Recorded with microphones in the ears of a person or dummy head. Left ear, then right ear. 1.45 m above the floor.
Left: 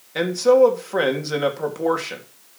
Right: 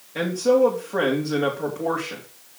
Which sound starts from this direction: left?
A man speaking, at 0.1 s.